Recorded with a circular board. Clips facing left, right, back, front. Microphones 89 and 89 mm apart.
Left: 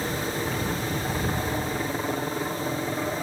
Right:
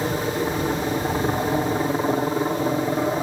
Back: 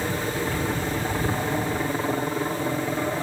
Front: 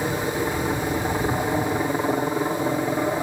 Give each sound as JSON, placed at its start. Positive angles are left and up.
{"t": 0.0, "sound": "a helicopter", "azimuth_deg": -65}